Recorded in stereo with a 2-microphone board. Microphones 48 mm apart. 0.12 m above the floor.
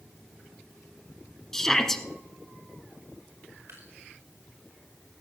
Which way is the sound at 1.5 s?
10° left (ahead or behind).